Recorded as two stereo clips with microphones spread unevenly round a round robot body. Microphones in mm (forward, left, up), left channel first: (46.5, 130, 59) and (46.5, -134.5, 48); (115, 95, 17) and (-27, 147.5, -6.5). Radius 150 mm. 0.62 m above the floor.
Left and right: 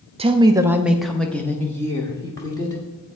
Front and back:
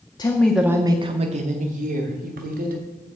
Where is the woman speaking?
70° right, 0.6 m; by 2.8 s 165° left, 1.7 m.